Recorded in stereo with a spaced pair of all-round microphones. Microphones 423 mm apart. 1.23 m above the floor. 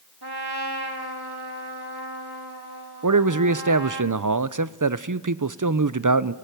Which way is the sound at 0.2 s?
65° right (ahead or behind).